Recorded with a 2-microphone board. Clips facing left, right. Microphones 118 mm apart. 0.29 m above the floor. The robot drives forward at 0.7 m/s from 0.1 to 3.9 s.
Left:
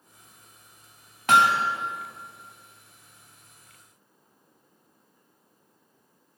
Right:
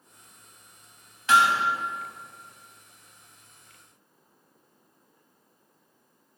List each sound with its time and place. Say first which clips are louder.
1.3 s hammering: left 1 dB; 55° left (ahead or behind), 0.7 m; by 1.7 s 60° left (ahead or behind), 0.7 m